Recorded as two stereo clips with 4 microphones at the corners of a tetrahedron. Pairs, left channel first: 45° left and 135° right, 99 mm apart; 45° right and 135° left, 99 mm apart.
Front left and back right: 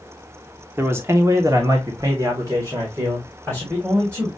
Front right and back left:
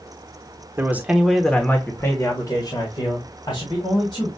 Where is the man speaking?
175° left, 1.0 m; by 4.3 s 75° right, 3 m.